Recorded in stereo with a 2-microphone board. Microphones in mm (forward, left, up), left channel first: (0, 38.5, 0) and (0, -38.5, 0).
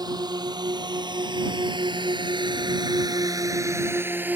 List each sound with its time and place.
0.0 s a drone: 65° right (ahead or behind); by 4.4 s 20° right (ahead or behind)